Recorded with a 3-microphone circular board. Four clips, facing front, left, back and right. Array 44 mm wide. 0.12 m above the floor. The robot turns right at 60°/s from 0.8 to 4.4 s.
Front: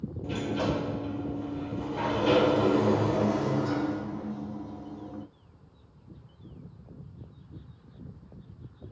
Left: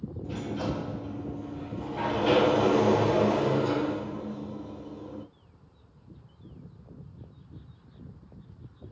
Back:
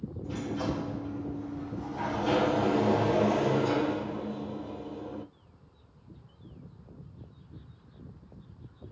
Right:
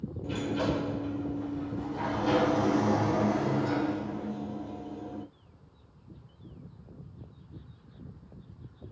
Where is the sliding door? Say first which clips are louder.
Right 3 dB, front 3 dB; 30° right, 2.5 m; by 5.2 s 175° right, 2.5 m.